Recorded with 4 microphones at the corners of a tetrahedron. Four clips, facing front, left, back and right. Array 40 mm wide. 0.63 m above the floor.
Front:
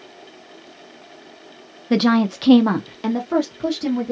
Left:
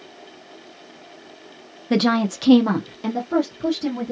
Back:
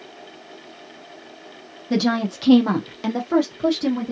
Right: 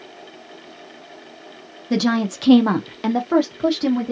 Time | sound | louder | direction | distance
1.9 | a woman speaking | left 1 dB, front 4 dB | 35° left | 0.6 m